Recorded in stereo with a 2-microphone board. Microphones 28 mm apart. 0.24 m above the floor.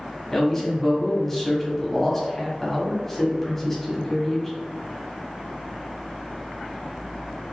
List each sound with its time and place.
0.3 s a man speaking: 10° left (ahead or behind), 1.1 m